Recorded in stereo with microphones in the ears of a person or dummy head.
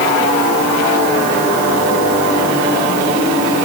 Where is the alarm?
I don't hear an alarm.